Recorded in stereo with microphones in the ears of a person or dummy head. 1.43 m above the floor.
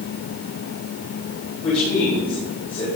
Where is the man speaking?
35° left (ahead or behind), 6 m; by 2.9 s 25° left (ahead or behind), 6 m.